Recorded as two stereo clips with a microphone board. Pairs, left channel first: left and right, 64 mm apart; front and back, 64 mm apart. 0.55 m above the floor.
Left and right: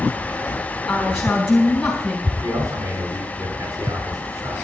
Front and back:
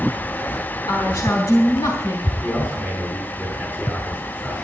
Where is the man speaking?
60° right, 6.5 m.